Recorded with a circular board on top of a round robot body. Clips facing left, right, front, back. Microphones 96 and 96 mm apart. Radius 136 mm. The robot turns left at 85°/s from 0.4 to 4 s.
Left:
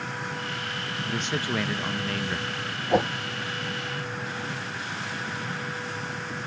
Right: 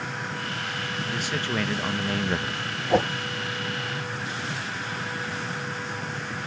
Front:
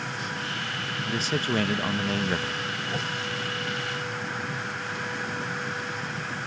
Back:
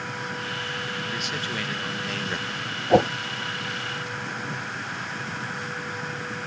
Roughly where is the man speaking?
Ahead left.